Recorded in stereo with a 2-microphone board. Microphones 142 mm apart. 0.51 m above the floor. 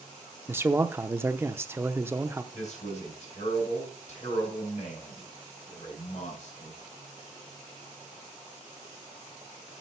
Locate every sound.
0.5 s a man speaking: 15° right (ahead or behind), 0.7 m
2.5 s a man speaking: 55° left (ahead or behind), 5.5 m